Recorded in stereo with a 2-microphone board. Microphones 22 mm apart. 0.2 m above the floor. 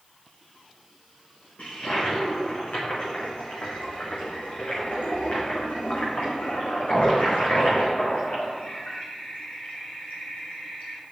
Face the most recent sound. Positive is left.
turn(degrees=75)  # may be behind; listen again after turning